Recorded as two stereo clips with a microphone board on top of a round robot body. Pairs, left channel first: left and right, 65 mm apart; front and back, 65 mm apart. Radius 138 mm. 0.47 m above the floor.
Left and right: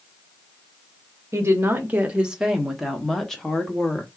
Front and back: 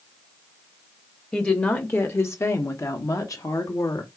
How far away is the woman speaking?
About 1.1 m.